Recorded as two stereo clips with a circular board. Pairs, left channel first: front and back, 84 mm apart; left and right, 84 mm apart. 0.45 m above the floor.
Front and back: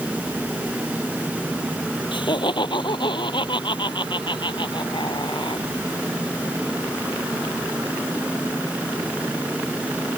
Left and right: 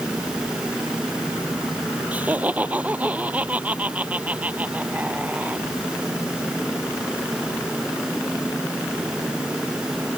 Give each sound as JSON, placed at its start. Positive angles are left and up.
{"t": 2.1, "sound": "laughter", "azimuth_deg": -20}